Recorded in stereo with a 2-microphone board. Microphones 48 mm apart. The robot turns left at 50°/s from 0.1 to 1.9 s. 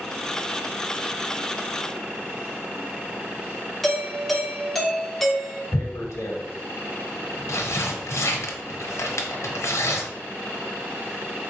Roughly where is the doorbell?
Centre.